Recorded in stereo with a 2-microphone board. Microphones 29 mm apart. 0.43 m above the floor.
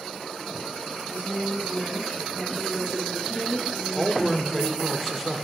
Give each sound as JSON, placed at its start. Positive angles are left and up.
{"t": 1.1, "sound": "a woman speaking", "side_deg": 75, "distance_m": 2.5}
{"t": 4.0, "sound": "a man speaking", "side_deg": 0, "distance_m": 0.8}